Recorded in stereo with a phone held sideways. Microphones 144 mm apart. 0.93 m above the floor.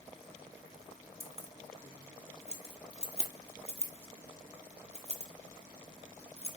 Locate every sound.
1.2 s keys jangling: 45° right (ahead or behind), 1.6 m